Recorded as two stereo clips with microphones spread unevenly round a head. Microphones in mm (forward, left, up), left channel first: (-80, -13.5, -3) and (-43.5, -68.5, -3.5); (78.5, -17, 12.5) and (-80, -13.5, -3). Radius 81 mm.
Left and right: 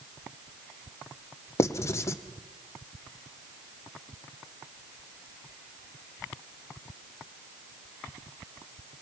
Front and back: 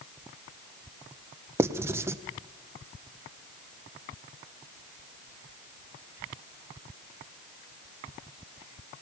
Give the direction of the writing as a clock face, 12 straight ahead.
8 o'clock.